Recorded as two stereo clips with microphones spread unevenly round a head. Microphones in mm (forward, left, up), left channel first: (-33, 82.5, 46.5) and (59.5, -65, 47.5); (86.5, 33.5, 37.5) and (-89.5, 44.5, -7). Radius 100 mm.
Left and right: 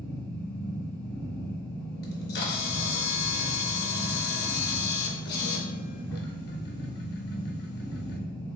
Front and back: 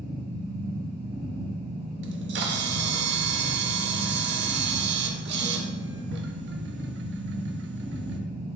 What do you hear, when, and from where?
0.0 s a machine running: 160° right, 1.0 m
2.0 s a camera shutter: 155° left, 0.5 m